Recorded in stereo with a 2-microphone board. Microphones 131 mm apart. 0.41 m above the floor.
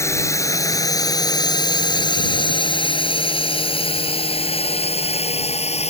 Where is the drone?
20° left (ahead or behind); by 5.9 s 55° left (ahead or behind).